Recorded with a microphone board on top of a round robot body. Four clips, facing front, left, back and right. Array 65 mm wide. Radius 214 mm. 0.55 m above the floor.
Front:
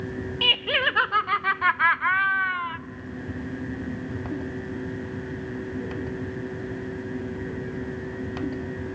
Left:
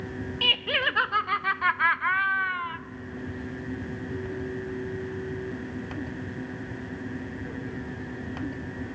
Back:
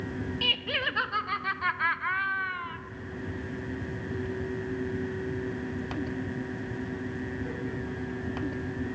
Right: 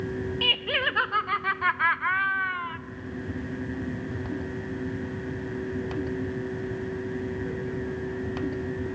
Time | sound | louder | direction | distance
0.4 | laughter | left 2 dB, front 8 dB | 10° left | 1.0 m